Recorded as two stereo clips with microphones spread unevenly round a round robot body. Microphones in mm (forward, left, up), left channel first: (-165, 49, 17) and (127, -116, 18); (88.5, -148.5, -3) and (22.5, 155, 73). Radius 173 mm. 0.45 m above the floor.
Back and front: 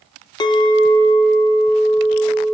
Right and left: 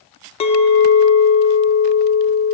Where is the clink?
135° right, 0.7 m.